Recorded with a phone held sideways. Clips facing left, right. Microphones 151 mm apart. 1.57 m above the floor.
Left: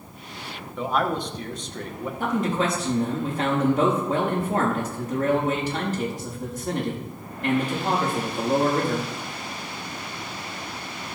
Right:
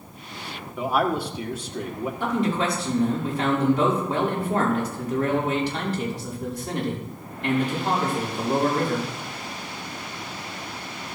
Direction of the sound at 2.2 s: 45° left (ahead or behind).